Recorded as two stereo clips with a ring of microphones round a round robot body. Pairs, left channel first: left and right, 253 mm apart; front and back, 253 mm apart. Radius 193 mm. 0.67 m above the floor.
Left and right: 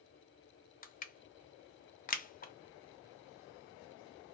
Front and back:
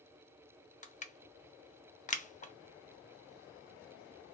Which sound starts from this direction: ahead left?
Crushing, at 0.8 s.